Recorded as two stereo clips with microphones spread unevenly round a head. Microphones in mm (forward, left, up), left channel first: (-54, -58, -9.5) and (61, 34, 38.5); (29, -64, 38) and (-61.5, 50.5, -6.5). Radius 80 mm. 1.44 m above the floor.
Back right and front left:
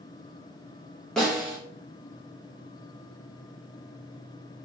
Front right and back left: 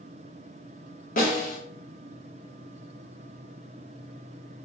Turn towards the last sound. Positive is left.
turn(degrees=-45)